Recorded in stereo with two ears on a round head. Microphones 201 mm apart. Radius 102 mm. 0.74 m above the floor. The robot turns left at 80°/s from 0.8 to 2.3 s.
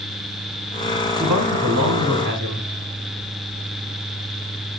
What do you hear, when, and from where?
1.2 s a man speaking: 10° right, 5 m; by 2.7 s 95° right, 5 m